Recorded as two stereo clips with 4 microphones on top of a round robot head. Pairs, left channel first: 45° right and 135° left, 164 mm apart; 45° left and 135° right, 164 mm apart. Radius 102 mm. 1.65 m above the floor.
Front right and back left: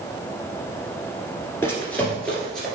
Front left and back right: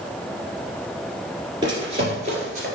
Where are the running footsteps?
100° right, 1.7 m; by 2.7 s 135° right, 2.0 m.